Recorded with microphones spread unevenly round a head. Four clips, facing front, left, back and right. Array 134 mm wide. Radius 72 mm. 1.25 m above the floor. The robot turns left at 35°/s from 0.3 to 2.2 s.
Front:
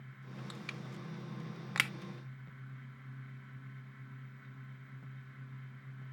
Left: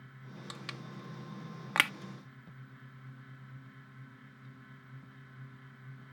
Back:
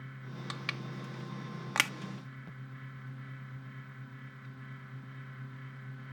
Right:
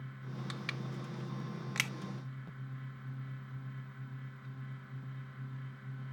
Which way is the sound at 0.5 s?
170° left.